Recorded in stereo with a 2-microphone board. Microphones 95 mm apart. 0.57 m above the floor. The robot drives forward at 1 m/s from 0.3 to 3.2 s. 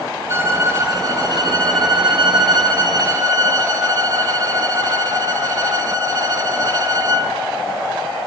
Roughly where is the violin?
Right.